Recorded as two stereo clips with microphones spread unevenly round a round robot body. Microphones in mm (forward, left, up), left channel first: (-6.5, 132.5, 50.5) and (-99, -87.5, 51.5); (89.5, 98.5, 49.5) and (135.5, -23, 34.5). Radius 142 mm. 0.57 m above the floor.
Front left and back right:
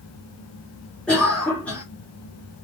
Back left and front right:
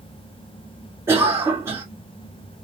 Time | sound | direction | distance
1.1 | a cough | 15° right | 1.6 m